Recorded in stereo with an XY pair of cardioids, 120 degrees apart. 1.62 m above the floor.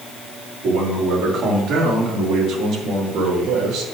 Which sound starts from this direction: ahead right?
A man speaking, at 0.6 s.